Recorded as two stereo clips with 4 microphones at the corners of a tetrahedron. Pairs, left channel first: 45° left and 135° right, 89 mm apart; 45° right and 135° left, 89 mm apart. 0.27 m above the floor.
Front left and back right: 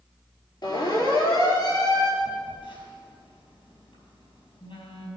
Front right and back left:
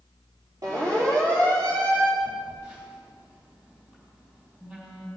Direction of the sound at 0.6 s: 85° left.